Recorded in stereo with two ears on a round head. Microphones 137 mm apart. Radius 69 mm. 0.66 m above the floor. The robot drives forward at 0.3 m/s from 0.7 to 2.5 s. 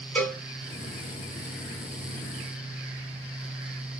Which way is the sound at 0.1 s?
10° left (ahead or behind).